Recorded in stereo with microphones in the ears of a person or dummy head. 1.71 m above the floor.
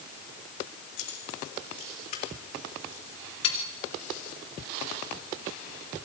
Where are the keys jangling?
55° left (ahead or behind), 4.5 m; by 3.6 s 40° left (ahead or behind), 2.5 m.